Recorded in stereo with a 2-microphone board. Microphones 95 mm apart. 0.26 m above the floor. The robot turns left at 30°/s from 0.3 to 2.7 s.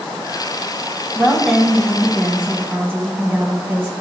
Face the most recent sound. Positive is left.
turn(degrees=-35)